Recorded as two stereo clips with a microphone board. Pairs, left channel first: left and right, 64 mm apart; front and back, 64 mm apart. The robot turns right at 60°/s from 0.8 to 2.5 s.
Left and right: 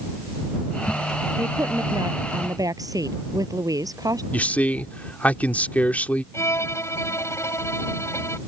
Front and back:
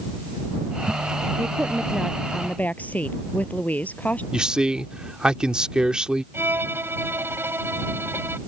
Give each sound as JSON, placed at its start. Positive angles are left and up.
{"t": 1.4, "sound": "a woman speaking", "azimuth_deg": -135}
{"t": 4.3, "sound": "a man speaking", "azimuth_deg": 120}
{"t": 6.3, "sound": "a violin", "azimuth_deg": 130}